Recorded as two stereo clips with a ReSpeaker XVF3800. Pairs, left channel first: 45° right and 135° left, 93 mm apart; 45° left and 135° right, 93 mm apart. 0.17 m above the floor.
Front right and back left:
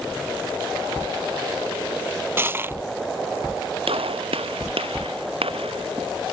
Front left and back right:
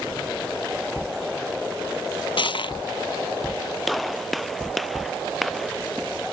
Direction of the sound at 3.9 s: 135° left.